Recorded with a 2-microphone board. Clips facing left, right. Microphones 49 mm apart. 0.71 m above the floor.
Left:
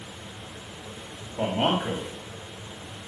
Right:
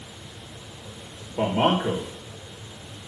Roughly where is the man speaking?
Right.